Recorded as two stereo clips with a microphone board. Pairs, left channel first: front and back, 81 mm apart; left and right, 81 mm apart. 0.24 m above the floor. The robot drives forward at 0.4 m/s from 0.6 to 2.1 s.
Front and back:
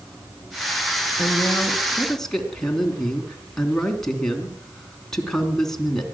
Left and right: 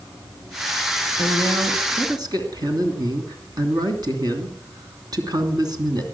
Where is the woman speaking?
75° right, 2.5 m; by 6.0 s 85° right, 2.5 m.